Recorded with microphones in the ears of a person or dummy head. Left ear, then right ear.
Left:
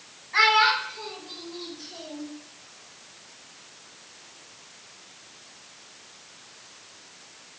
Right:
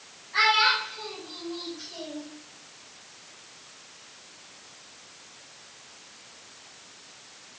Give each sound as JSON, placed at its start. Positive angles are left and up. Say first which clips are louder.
{"t": 0.3, "sound": "a child speaking", "louder": "left 2 dB", "side_deg": 30, "distance_m": 1.6}